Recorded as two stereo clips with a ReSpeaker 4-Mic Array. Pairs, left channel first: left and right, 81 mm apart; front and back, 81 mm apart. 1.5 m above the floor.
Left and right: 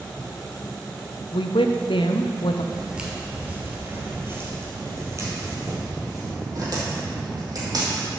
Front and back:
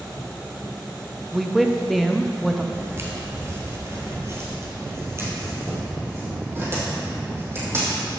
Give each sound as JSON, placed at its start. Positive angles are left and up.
{"t": 1.3, "sound": "a woman speaking", "azimuth_deg": 90, "distance_m": 0.7}
{"t": 2.7, "sound": "footsteps", "azimuth_deg": -165, "distance_m": 1.7}